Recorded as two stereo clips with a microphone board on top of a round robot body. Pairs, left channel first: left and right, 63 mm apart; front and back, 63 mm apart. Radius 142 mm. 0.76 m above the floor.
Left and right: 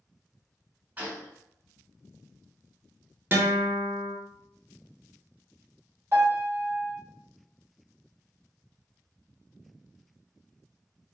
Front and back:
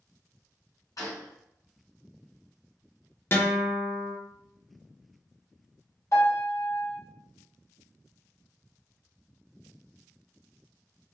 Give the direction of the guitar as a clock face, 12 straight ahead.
1 o'clock.